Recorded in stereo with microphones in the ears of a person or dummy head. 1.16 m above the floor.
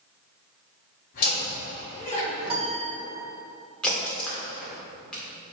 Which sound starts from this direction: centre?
A crack, at 3.8 s.